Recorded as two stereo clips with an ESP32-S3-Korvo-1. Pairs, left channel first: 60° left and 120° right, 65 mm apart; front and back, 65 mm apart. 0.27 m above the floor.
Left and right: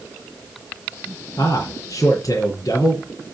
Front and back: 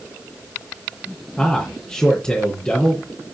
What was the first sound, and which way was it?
A man speaking, 70° left.